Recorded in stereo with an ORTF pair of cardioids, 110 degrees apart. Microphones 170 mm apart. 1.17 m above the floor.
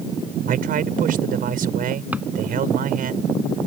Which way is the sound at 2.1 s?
10° right.